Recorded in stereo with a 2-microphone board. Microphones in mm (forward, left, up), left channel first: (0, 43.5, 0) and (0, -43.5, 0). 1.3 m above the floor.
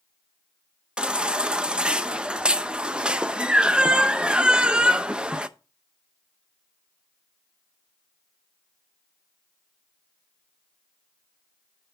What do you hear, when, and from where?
1.0 s a baby crying: 10° right (ahead or behind), 0.5 m